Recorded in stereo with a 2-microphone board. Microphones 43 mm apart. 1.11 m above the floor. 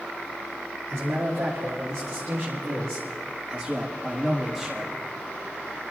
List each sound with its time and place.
0.9 s a man speaking: 80° right, 2.5 m; by 4.9 s 10° right (ahead or behind), 1.9 m